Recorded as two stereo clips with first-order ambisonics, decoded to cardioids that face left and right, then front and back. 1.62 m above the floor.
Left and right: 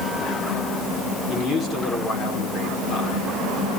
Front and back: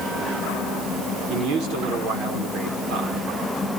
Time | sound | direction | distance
1.3 | a man speaking | 155° left | 6.5 m